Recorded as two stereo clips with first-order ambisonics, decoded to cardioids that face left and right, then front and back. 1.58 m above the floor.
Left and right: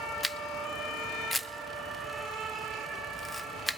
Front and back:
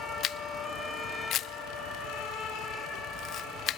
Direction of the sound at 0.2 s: 10° left.